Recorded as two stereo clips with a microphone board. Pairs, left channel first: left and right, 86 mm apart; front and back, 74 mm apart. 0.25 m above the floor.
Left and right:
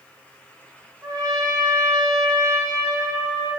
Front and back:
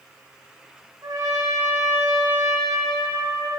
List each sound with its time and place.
1.0 s a trumpet: 140° right, 3.5 m